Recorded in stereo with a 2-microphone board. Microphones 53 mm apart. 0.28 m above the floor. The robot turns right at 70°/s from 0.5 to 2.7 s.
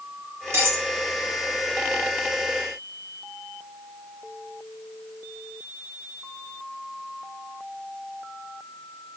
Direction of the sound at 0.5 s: 55° right (ahead or behind).